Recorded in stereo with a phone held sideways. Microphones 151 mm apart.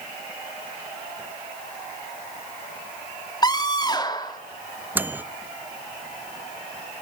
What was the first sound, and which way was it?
A scream, 30° left (ahead or behind).